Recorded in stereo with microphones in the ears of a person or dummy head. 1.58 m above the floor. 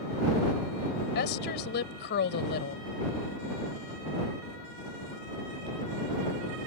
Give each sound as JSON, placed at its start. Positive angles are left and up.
{"t": 1.1, "sound": "a woman speaking", "side_deg": 60}